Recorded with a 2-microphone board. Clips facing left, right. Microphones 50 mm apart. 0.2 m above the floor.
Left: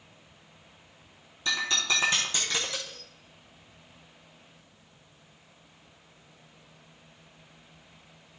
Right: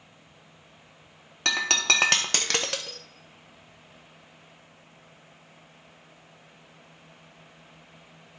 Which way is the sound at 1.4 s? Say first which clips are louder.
Right 4 dB; 85° right.